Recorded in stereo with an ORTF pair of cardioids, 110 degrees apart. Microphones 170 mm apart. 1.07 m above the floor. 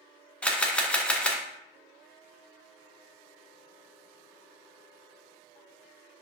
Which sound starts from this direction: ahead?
A camera shutter, at 0.4 s.